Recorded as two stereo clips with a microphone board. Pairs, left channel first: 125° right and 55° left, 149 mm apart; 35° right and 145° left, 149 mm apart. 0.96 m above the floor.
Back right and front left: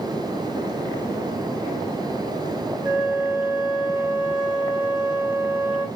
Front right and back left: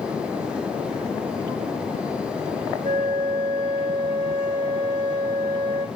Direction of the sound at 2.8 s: 125° left.